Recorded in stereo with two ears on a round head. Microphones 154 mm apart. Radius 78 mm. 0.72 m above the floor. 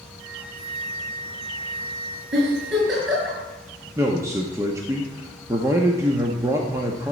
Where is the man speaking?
15° right (ahead or behind), 0.9 m.